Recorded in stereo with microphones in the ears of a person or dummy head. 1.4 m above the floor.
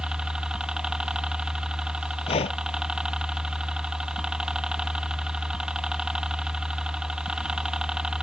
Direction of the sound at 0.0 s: 5° right (ahead or behind).